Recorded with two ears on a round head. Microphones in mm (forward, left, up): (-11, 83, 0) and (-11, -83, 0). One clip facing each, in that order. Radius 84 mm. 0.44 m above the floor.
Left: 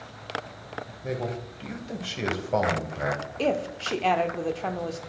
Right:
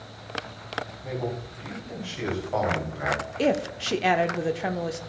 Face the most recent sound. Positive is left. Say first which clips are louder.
# right 2 dB
turn(degrees=-15)  # may be behind; listen again after turning